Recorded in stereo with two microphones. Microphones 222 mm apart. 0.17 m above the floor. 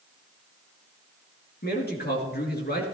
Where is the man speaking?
45° left (ahead or behind), 2.5 m.